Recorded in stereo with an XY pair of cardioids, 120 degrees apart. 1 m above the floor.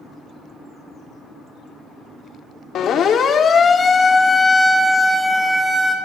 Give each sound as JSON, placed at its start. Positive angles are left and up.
{"t": 2.8, "sound": "a siren", "azimuth_deg": 60, "distance_m": 3.5}